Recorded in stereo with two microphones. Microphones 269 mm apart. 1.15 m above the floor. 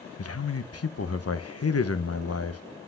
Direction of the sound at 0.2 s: 60° left (ahead or behind).